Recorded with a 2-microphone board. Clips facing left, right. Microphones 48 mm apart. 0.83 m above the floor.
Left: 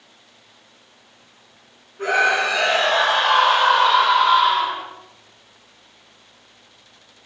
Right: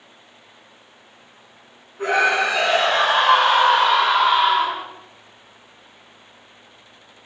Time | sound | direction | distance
2.0 | a scream | 5° right (ahead or behind) | 2 m